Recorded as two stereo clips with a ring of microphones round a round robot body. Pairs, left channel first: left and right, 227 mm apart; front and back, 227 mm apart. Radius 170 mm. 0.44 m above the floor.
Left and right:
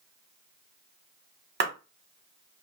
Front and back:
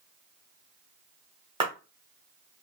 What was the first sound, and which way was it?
A clap, 115° right.